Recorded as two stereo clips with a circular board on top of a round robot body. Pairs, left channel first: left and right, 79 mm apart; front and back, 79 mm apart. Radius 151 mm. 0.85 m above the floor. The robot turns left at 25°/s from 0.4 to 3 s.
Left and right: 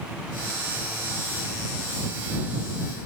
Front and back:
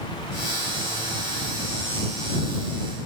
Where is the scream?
I don't hear a scream.